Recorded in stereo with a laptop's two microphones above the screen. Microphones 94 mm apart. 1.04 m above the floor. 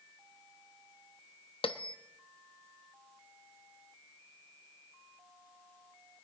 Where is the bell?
70° left (ahead or behind), 0.8 m.